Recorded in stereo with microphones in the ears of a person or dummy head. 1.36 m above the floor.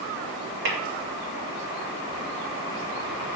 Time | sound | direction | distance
0.7 | tapping | 65° right (ahead or behind) | 3.5 m